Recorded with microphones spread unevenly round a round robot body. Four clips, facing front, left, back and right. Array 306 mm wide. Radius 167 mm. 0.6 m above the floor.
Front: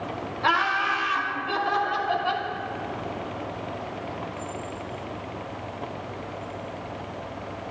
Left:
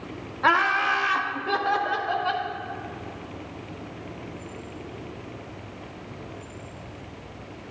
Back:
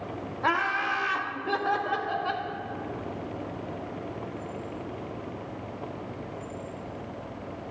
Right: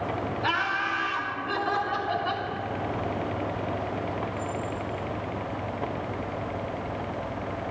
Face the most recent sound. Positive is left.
turn(degrees=135)